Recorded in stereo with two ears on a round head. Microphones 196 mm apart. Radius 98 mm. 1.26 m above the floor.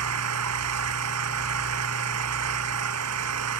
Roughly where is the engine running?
Right.